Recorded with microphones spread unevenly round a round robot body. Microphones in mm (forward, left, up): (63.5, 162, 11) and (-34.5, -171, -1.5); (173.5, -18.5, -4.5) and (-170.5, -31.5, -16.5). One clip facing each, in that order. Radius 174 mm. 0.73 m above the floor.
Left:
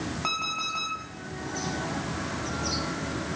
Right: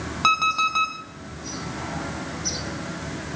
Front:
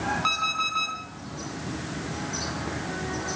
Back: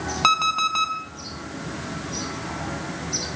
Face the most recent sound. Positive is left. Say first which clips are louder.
# right 5 dB, back 5 dB
turn(degrees=-165)